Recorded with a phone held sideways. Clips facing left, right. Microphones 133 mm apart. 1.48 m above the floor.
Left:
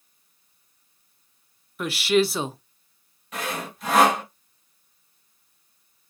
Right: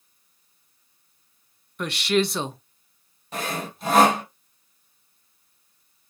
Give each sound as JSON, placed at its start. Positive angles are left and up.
{"t": 1.8, "sound": "a woman speaking", "side_deg": 5, "distance_m": 0.5}
{"t": 3.3, "sound": "sawing", "side_deg": -30, "distance_m": 1.8}